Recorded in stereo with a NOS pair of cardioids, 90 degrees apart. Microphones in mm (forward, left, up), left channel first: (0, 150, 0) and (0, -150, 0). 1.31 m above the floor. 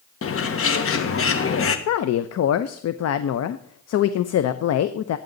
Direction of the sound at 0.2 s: 50° left.